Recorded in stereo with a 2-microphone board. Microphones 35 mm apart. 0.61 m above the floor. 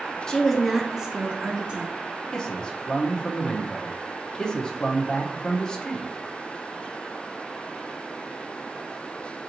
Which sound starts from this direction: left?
A man speaking, at 2.3 s.